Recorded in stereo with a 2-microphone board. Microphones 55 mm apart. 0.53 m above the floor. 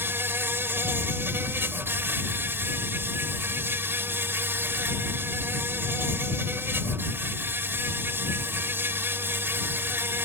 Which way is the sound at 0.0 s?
45° right (ahead or behind).